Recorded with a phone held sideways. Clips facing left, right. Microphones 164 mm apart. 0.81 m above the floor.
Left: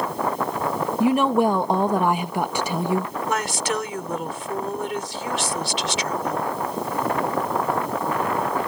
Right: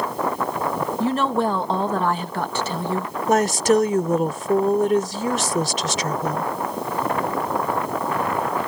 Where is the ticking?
I don't hear ticking.